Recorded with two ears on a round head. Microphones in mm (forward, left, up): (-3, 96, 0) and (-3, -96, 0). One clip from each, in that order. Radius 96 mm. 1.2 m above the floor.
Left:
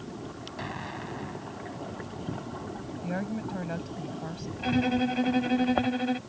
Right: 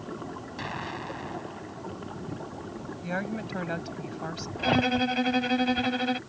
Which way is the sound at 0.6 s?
25° right (ahead or behind).